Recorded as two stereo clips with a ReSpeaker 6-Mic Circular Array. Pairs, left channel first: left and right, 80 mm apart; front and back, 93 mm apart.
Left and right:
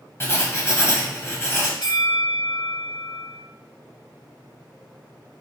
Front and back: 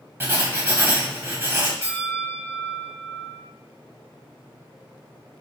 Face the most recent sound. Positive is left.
turn(degrees=120)